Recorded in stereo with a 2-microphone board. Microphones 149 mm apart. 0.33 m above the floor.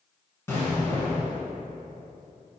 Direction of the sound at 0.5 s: 20° left (ahead or behind).